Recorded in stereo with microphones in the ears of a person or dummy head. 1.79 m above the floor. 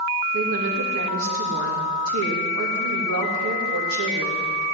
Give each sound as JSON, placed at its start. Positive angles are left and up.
{"t": 0.3, "sound": "a woman speaking", "side_deg": -75, "distance_m": 3.0}